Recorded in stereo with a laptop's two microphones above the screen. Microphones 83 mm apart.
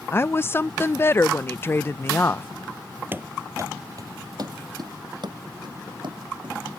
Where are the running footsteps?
25° right (ahead or behind); by 6.8 s 70° right (ahead or behind).